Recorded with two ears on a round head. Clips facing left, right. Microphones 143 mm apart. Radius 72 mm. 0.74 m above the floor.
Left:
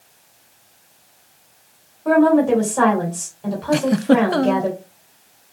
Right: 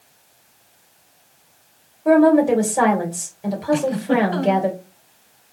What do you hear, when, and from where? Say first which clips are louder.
2.0 s a woman speaking: right 1 dB; 15° right (ahead or behind), 2 m
3.7 s a giggle: left 4 dB; 60° left (ahead or behind), 0.5 m